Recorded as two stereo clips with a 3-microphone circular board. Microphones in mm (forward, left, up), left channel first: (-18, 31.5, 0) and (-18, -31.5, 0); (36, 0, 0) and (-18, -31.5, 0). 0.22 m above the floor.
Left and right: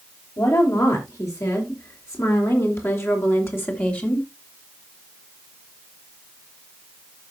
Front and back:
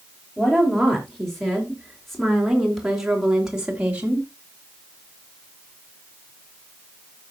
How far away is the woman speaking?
About 4.5 m.